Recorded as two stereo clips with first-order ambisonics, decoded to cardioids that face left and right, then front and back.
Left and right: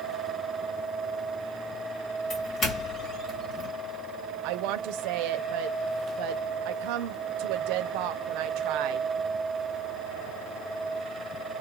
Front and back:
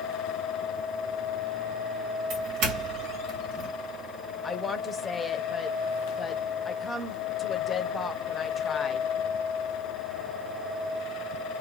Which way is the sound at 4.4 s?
75° right.